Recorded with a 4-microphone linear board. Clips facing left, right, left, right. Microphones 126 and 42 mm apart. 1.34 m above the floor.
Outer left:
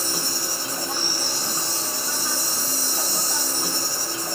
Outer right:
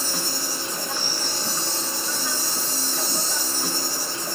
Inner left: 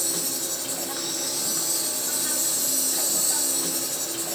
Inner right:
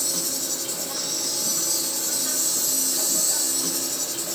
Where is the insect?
15° left (ahead or behind), 3 m.